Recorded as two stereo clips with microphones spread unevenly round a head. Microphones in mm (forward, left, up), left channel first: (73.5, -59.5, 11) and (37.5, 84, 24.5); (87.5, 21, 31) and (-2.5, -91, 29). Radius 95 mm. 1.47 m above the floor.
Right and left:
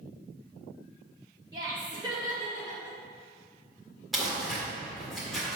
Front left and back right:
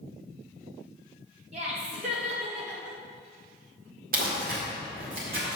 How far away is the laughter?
About 2.5 m.